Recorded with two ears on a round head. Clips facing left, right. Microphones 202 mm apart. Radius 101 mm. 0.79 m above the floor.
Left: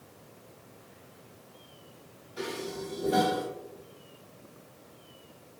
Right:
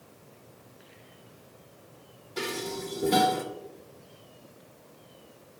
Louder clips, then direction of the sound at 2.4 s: Right 2 dB; 85° right.